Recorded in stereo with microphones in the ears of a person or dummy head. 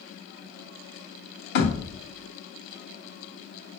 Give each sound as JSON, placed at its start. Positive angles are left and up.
{"t": 1.6, "sound": "a thud", "side_deg": 55, "distance_m": 1.8}